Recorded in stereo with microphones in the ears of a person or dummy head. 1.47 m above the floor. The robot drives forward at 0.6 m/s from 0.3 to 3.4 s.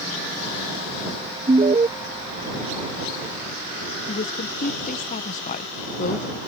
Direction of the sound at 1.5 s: 30° right (ahead or behind).